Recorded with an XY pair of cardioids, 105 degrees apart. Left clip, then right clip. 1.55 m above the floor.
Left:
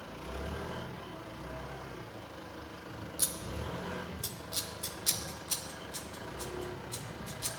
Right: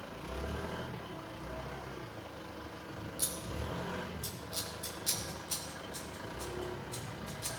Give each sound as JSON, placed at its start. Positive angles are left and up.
{"t": 3.2, "sound": "scissors", "azimuth_deg": 35, "distance_m": 1.2}